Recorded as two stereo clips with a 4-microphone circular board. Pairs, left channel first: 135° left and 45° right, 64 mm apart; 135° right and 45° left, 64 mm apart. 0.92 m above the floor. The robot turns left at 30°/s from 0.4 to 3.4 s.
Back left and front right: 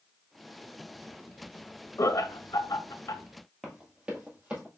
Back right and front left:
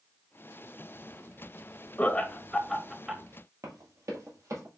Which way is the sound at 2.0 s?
160° left.